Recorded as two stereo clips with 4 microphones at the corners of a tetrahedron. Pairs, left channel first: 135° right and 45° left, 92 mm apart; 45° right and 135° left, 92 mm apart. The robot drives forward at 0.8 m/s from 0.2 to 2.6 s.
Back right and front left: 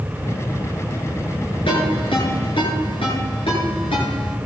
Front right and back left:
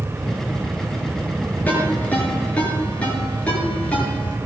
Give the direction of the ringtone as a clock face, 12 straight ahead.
4 o'clock.